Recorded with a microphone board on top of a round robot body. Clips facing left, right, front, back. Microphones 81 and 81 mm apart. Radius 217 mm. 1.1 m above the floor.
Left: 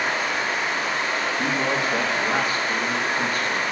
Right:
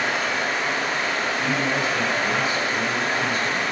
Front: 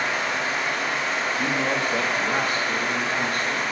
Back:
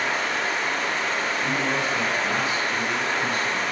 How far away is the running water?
About 5.5 m.